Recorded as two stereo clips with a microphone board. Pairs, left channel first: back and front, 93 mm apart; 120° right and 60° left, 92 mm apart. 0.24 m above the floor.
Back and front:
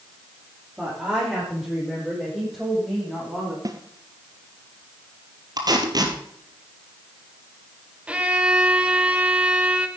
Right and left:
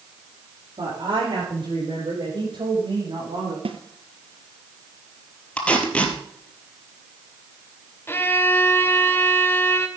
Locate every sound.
0.8 s a woman speaking: 85° left, 8.5 m; by 3.5 s 90° left, 10.5 m
3.6 s a snare drum: 50° left, 1.2 m
5.6 s tape being pulled: 45° right, 2 m
8.1 s a violin: 70° right, 1.3 m